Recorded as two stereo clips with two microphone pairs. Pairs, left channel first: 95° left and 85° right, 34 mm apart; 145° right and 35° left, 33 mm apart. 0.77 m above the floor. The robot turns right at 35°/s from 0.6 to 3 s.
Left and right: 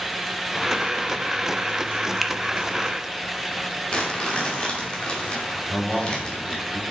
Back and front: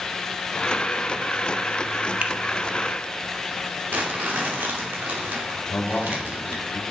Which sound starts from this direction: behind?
A man speaking, at 5.7 s.